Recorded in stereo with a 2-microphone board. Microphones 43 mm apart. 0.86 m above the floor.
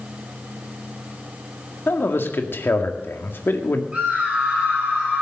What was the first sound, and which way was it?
A man speaking, 70° left (ahead or behind).